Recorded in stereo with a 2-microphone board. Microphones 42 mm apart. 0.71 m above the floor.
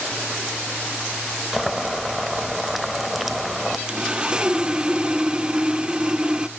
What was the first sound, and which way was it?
Boiling, centre (ahead or behind).